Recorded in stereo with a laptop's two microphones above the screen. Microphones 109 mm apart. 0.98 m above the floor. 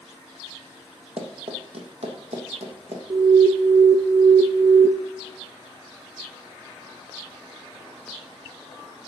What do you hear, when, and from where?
1.2 s running footsteps: 60° right (ahead or behind), 2.0 m; by 3.0 s 75° right (ahead or behind), 3 m
3.1 s an alarm: 40° right (ahead or behind), 0.7 m